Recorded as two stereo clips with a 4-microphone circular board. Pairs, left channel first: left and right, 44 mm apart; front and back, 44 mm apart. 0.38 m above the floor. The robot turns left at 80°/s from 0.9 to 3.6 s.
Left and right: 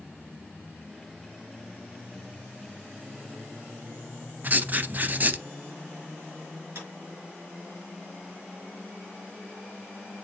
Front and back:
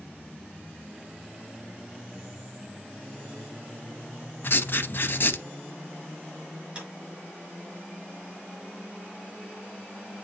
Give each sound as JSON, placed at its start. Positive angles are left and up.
{"t": 4.4, "sound": "writing", "azimuth_deg": -35, "distance_m": 0.5}
{"t": 6.8, "sound": "a clap", "azimuth_deg": -115, "distance_m": 5.0}